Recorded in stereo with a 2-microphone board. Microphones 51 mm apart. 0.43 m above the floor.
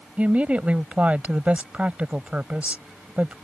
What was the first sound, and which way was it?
A woman speaking, 30° right (ahead or behind).